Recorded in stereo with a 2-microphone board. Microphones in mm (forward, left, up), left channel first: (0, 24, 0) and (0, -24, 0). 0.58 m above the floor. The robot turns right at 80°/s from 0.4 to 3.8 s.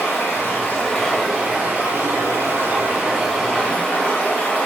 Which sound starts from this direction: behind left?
Running water, at 0.0 s.